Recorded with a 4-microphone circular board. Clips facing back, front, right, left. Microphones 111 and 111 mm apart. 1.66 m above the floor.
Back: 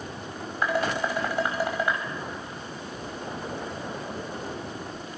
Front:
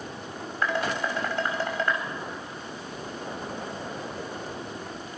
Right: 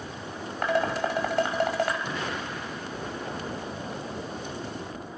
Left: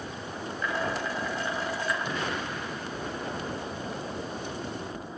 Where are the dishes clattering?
100° right, 5.5 m.